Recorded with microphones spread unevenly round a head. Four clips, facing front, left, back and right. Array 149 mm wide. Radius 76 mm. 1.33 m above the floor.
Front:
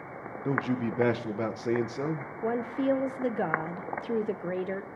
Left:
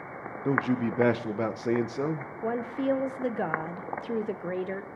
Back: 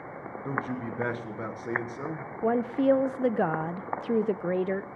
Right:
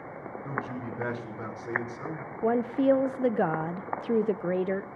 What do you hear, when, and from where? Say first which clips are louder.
0.5 s a man speaking: left 10 dB, front 4 dB; 80° left, 1.4 m
2.4 s a woman speaking: right 5 dB, back 4 dB; 70° right, 0.6 m